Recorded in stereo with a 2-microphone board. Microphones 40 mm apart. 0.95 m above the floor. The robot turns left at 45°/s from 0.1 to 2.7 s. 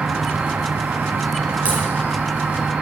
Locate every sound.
0.0 s an insect: 30° right, 2 m; by 2.8 s 145° right, 2 m
1.6 s a crack: 35° right (ahead or behind), 5.5 m; by 1.8 s 40° right (ahead or behind), 5.5 m